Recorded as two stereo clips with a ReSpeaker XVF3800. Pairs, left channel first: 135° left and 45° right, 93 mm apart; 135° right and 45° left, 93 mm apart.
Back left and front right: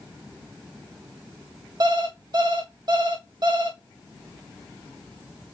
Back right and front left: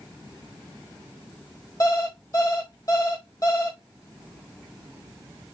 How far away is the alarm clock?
About 1.6 m.